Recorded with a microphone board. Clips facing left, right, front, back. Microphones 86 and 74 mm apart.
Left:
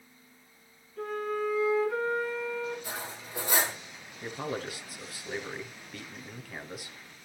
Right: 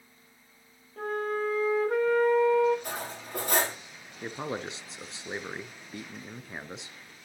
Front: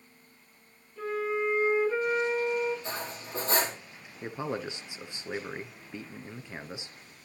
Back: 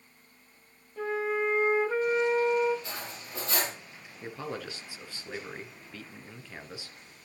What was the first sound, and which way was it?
A flute, 130° right.